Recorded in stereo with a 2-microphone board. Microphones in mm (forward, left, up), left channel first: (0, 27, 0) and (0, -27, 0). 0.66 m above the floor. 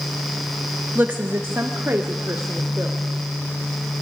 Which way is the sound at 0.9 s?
30° right (ahead or behind).